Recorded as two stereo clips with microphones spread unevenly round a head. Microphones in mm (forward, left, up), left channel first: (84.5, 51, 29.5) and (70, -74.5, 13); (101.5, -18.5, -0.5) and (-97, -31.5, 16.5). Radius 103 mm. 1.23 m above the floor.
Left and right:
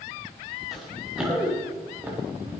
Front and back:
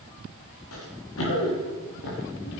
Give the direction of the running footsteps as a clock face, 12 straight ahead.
12 o'clock.